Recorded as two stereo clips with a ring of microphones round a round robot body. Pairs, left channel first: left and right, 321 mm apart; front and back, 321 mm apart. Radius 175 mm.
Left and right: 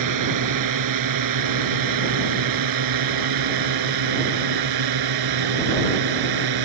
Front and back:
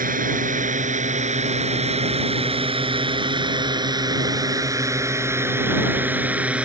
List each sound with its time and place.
0.0 s a drone: 115° right; by 6.7 s 95° right